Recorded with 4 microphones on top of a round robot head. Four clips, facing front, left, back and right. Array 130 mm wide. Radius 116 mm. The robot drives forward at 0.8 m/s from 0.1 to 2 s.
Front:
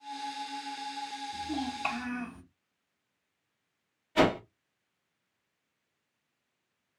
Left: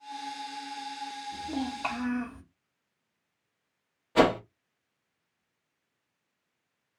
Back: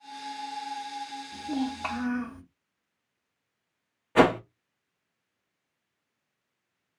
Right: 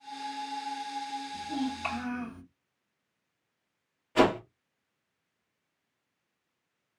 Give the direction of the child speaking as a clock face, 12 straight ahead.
8 o'clock.